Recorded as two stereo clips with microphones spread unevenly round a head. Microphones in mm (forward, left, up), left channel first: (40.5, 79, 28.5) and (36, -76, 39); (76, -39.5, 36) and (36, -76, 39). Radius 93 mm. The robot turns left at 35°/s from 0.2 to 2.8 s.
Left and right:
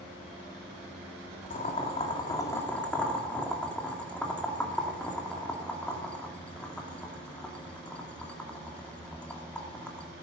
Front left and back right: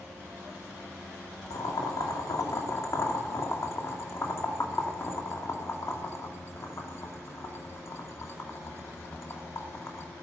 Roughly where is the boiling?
Ahead left.